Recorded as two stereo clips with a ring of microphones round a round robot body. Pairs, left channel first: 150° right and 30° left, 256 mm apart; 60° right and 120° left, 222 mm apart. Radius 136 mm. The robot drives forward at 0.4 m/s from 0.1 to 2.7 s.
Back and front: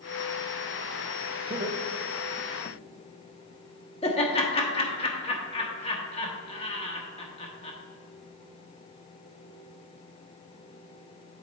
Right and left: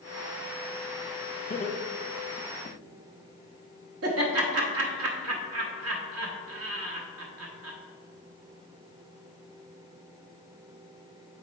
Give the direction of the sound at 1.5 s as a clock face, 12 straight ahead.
1 o'clock.